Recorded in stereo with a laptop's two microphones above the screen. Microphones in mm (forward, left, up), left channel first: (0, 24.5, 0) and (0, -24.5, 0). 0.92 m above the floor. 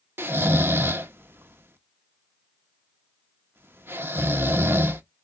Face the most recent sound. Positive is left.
turn(degrees=-50)  # may be behind; listen again after turning